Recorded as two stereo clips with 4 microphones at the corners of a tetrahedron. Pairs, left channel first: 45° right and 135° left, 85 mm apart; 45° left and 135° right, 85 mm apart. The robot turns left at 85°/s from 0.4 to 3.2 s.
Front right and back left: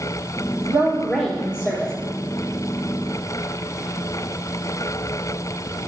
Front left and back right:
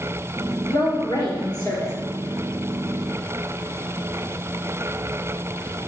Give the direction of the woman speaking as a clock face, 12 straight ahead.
9 o'clock.